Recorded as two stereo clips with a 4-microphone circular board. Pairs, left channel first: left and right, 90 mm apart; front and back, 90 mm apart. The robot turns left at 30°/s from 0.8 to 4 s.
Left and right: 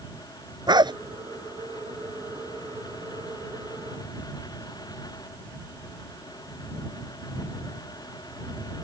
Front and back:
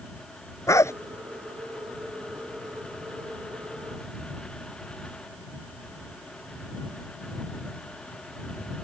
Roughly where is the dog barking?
Ahead right.